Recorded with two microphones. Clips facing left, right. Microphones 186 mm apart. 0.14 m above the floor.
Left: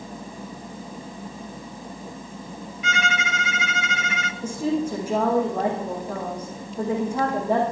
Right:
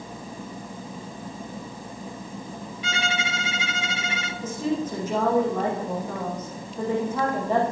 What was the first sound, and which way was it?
A violin, 35° right (ahead or behind).